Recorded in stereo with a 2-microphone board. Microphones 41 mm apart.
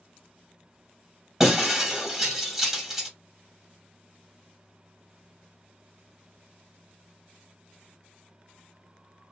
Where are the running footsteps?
No running footsteps in this recording.